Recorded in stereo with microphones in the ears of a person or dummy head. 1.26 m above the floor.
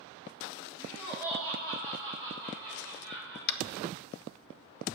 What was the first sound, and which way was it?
Laughter, 20° left (ahead or behind).